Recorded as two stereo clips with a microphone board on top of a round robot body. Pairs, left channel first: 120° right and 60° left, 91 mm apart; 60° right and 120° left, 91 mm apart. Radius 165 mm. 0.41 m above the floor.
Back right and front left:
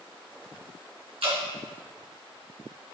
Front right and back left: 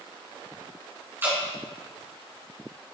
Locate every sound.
1.2 s dripping: 55° left, 3 m